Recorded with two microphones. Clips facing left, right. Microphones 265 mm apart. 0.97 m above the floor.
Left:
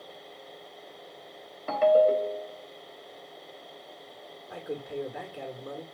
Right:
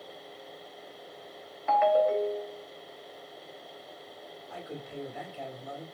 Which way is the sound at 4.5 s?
55° left (ahead or behind).